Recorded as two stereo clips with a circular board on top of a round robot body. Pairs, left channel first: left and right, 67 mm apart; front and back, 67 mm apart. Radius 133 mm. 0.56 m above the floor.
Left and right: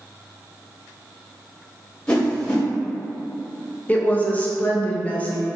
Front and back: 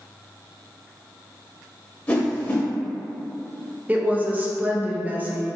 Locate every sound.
2.1 s a whoosh: 35° left, 1.1 m
3.9 s a woman speaking: 135° left, 0.7 m